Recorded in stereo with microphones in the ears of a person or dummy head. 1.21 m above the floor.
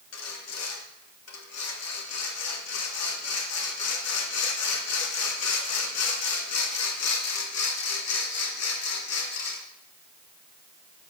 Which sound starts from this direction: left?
Sawing, at 0.1 s.